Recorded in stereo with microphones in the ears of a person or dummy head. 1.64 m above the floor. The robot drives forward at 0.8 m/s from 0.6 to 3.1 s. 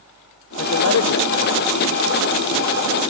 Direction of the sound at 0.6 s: 60° left (ahead or behind).